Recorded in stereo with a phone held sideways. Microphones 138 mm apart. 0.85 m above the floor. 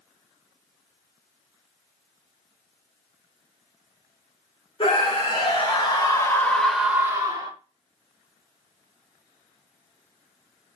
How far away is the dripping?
No dripping in this recording.